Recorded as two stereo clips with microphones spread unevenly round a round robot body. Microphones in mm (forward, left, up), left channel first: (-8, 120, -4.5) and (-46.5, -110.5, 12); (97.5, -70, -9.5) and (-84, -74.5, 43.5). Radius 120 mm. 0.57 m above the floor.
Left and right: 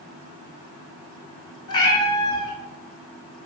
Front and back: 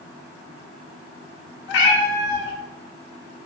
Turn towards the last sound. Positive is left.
turn(degrees=15)